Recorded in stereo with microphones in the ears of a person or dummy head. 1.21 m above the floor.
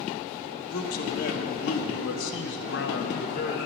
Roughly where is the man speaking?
Left.